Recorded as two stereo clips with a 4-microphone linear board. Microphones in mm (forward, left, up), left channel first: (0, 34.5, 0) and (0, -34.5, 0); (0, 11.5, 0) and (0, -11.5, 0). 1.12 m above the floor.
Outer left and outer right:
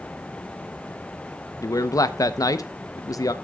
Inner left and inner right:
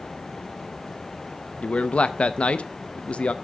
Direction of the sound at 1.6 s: 55° left (ahead or behind).